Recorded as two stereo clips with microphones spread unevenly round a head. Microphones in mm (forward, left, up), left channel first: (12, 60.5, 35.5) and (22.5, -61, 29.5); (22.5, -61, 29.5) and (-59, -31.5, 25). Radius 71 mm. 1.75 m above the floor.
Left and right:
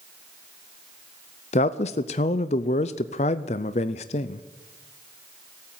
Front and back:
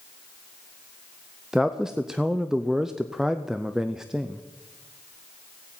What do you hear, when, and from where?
1.5 s a man speaking: 75° left, 0.5 m